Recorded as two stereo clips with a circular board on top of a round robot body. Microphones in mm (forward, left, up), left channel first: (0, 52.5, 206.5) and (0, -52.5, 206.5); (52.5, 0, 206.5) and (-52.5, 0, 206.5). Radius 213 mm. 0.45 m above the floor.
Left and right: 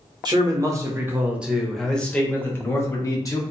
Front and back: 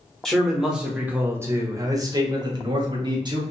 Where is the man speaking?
85° right, 1.2 m; by 3.4 s 140° left, 1.6 m.